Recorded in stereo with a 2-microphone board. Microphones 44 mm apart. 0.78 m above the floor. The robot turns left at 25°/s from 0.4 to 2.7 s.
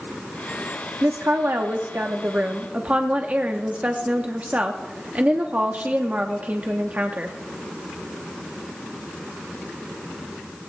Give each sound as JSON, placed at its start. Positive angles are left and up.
{"t": 1.0, "sound": "a woman speaking", "azimuth_deg": -100, "distance_m": 0.9}